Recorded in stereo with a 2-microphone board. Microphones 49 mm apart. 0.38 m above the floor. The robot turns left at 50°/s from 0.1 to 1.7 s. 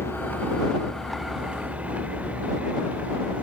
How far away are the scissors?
No scissors in this recording.